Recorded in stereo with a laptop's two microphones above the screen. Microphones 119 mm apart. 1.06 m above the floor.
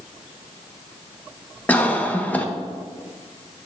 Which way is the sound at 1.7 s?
15° left (ahead or behind).